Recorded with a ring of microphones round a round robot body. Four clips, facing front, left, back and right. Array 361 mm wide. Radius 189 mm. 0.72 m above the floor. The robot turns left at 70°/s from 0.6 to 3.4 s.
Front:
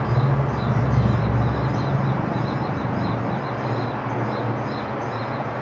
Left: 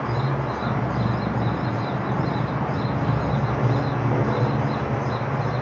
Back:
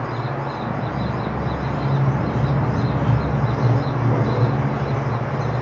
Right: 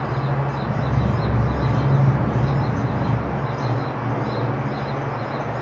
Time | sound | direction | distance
0.0 | running water | 10° right | 0.9 m